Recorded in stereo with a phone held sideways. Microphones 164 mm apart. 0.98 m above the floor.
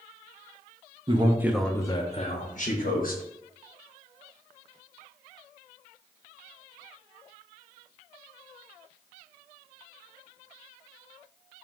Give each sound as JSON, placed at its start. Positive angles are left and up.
{"t": 1.1, "sound": "a man speaking", "side_deg": -35, "distance_m": 0.6}